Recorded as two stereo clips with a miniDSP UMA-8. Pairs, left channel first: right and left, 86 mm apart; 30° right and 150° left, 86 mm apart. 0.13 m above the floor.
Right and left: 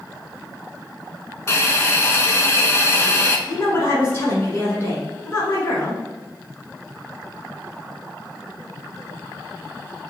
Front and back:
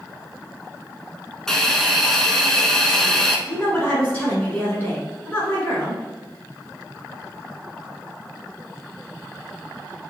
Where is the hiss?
105° right, 0.6 m.